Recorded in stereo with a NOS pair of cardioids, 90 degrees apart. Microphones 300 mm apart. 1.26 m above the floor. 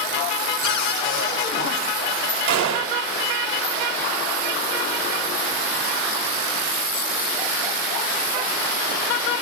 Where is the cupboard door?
65° left, 3 m.